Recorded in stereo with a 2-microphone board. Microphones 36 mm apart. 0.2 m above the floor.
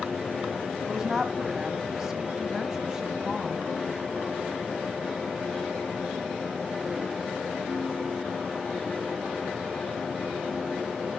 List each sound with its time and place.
0.8 s a woman speaking: 15° right (ahead or behind), 1.2 m